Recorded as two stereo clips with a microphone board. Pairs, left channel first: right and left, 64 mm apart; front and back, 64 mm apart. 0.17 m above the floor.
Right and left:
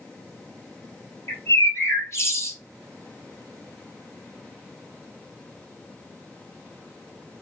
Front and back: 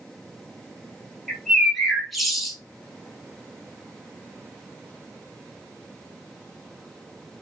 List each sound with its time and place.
1.3 s a bird: 90° right, 0.9 m